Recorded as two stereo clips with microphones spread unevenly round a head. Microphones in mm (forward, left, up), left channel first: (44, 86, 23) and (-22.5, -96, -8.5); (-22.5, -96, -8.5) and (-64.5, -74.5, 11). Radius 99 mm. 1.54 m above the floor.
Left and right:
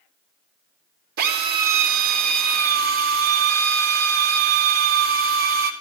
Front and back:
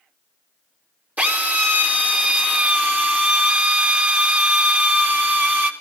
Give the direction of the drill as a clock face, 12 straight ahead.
5 o'clock.